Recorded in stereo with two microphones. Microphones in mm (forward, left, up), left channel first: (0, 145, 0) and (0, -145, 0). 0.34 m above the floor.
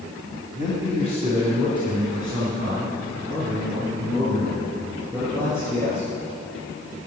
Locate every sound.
0.6 s a man speaking: 25° left (ahead or behind), 1.9 m; by 6.1 s 10° left (ahead or behind), 7 m